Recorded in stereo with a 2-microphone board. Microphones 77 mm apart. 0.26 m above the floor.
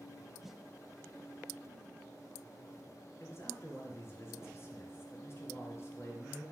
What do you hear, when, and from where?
0.4 s a snare drum: 5° right (ahead or behind), 0.5 m
3.2 s a man speaking: 35° left (ahead or behind), 3.5 m